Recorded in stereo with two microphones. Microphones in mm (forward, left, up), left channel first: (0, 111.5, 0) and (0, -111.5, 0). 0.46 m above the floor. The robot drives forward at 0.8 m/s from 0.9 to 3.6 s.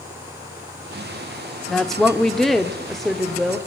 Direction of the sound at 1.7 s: Centre (ahead or behind).